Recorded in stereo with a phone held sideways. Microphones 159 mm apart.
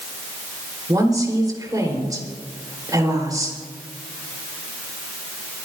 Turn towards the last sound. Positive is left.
turn(degrees=-25)  # may be behind; listen again after turning